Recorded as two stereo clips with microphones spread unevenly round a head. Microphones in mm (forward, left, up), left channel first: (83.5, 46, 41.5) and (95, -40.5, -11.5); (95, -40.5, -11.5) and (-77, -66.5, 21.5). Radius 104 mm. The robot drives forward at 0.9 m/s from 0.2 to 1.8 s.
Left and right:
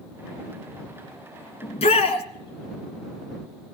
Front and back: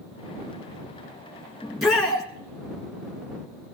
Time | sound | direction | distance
1.6 | a shout | 90° left | 1.8 m